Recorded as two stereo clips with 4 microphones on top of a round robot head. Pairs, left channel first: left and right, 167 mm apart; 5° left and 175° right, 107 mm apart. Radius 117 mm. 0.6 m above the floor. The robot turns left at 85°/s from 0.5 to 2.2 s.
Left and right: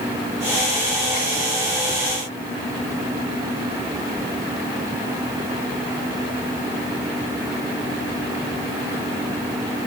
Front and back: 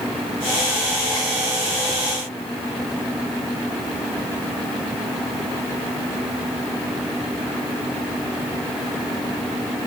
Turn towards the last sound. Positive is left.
No sound to turn to.